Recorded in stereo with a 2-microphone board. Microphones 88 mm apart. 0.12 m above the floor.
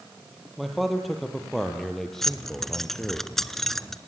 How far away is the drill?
No drill in this recording.